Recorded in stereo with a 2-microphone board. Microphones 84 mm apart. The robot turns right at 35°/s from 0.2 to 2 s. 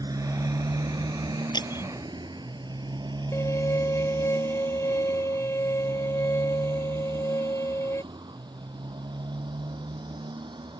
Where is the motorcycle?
55° right (ahead or behind); by 10.8 s 75° right (ahead or behind).